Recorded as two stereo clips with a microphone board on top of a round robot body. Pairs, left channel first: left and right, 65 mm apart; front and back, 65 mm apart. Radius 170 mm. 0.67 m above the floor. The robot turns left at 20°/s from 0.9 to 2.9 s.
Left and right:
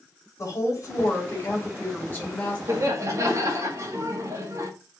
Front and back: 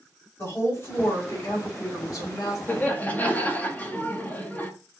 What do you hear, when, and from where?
0.4 s a woman speaking: 55° left, 3 m; by 2.6 s 20° left, 3 m
2.7 s laughter: 55° right, 1.8 m; by 4.7 s 60° right, 1.8 m